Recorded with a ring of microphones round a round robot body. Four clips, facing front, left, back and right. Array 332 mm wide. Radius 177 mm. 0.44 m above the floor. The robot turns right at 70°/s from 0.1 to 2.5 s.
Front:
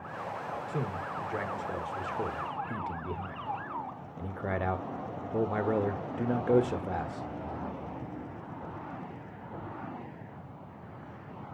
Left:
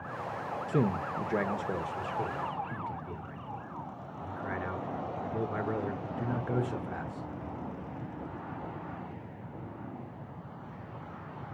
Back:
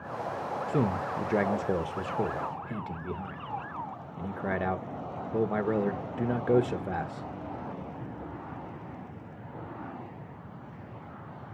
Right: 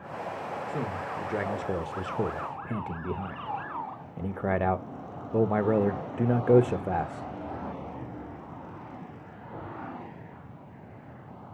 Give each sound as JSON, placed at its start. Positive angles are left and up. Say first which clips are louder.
{"t": 0.7, "sound": "a man speaking", "louder": "left 6 dB, back 9 dB", "azimuth_deg": 130, "distance_m": 1.4}